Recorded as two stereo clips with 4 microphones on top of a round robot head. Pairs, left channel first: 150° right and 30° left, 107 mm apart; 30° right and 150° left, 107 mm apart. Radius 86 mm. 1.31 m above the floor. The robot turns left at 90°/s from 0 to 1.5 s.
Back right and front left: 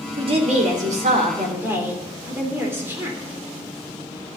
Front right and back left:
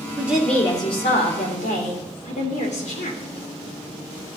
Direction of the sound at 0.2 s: 80° left.